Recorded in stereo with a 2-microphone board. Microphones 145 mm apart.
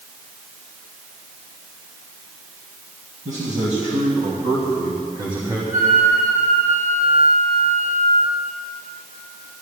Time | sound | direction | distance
3.2 | a man speaking | 60° right (ahead or behind) | 3 m
5.7 | a flute | 85° right | 7 m